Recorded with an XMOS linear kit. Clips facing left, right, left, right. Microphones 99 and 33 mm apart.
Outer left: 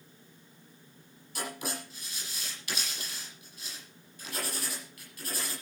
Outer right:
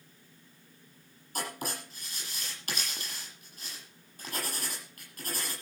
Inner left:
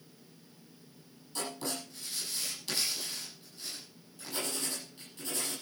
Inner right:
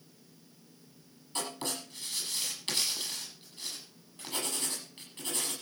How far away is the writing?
About 9.5 m.